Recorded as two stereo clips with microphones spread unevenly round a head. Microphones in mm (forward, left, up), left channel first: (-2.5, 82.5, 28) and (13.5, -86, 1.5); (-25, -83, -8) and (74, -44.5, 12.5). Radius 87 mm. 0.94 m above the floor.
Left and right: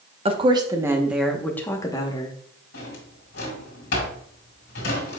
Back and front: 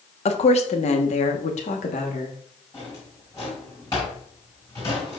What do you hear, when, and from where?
0.2 s a woman speaking: 140° right, 1.2 m; by 2.4 s 160° left, 1.4 m
2.7 s a drawer: 125° left, 3 m